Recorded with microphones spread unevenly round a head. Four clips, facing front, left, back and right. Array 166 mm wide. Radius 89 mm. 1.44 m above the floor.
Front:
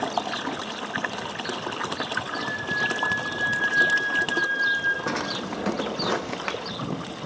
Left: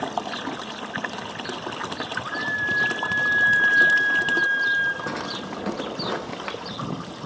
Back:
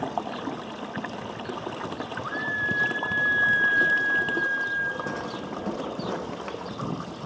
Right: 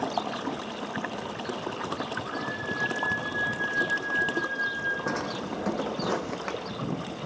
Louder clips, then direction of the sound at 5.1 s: Even, front 3 dB; straight ahead.